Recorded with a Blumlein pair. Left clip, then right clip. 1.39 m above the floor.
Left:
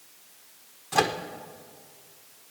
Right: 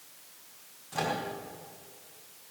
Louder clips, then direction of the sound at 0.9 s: Left 7 dB; 30° left.